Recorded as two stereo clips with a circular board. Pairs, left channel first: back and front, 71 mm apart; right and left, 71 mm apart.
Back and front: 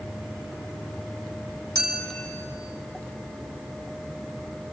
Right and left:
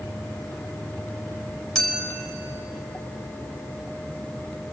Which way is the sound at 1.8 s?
170° right.